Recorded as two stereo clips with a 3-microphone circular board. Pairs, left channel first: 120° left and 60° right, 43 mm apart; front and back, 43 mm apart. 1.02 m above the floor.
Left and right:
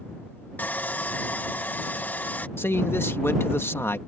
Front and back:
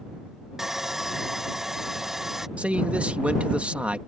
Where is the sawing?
105° left.